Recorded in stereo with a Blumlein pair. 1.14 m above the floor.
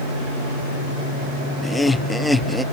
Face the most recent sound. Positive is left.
turn(degrees=0)